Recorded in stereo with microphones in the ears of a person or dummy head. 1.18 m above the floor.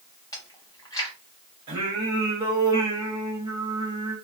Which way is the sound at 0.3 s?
15° left (ahead or behind).